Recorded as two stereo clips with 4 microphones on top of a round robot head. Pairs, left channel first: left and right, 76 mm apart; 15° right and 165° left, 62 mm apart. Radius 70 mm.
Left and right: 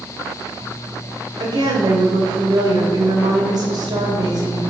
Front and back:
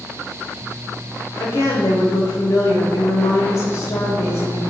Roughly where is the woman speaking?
Ahead right.